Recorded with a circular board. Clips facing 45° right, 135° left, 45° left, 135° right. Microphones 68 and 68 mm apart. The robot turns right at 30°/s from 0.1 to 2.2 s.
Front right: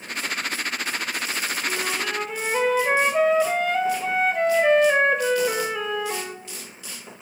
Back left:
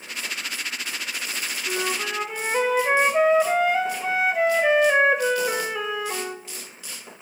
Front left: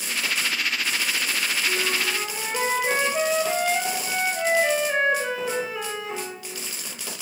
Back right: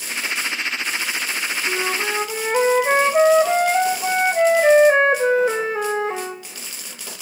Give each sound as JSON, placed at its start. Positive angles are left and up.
{"t": 1.7, "sound": "a flute", "azimuth_deg": -160, "distance_m": 1.1}